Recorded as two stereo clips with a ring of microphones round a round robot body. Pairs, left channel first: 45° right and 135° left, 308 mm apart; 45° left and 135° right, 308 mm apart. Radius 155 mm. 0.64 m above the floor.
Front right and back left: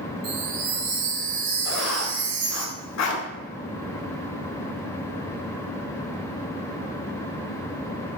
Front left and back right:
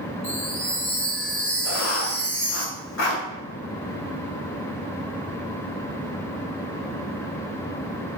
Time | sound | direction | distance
0.2 | a chime | 130° left | 2.5 m
1.6 | writing | 5° right | 1.6 m